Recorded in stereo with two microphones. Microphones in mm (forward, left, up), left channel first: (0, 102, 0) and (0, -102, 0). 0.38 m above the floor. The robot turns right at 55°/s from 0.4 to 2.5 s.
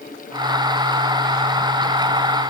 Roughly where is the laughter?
I don't hear laughter.